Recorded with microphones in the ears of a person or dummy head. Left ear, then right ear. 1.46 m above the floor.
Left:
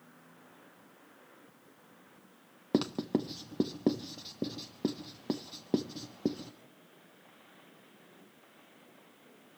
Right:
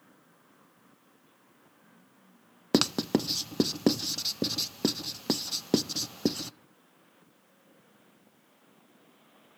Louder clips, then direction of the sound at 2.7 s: Right 5 dB; 70° right (ahead or behind).